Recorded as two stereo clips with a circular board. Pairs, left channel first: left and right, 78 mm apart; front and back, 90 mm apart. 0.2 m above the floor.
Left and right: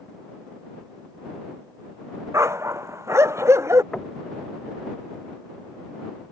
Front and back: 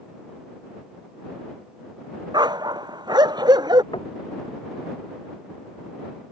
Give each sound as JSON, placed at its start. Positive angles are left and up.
{"t": 2.3, "sound": "a dog barking", "azimuth_deg": -145}
{"t": 3.9, "sound": "knocking", "azimuth_deg": 5}